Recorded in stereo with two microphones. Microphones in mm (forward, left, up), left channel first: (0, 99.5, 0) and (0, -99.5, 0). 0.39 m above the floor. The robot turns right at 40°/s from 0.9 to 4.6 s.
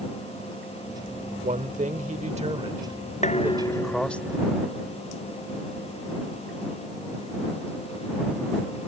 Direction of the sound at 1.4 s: 100° right.